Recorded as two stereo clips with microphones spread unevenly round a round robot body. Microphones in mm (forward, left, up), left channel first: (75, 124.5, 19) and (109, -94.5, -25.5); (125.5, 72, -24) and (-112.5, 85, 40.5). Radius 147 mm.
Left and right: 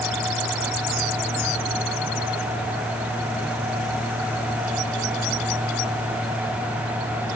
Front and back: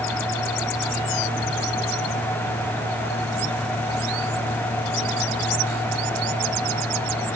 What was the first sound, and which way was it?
Only background noise.